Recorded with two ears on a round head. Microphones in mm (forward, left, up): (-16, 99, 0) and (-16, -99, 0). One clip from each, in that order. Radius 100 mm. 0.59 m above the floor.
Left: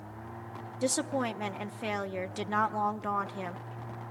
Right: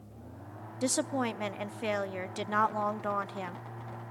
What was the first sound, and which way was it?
A woman speaking, 5° right (ahead or behind).